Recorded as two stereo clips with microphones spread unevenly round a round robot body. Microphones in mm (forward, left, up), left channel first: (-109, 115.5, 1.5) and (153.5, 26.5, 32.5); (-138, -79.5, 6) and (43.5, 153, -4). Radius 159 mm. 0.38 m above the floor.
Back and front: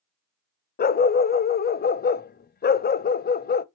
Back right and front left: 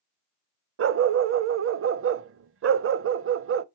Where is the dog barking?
100° left, 0.6 m.